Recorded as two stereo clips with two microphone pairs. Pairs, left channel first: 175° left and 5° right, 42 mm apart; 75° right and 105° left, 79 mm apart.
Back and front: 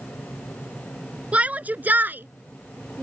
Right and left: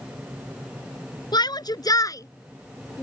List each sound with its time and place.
1.3 s a shout: 60° right; by 3.0 s 15° right